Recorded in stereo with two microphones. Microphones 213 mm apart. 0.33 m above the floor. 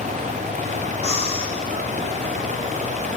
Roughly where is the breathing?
Left.